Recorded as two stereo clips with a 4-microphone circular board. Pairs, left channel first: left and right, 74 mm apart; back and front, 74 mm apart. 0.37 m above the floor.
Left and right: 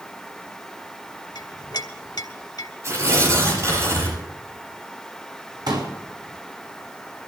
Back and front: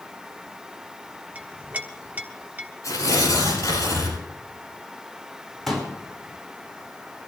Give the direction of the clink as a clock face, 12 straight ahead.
10 o'clock.